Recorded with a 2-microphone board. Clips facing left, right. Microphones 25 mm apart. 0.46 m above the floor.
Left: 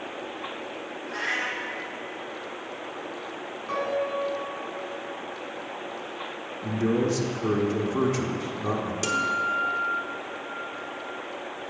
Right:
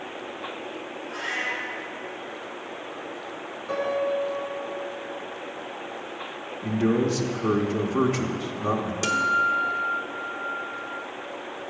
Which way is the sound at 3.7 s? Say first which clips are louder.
Right 2 dB; 20° left (ahead or behind).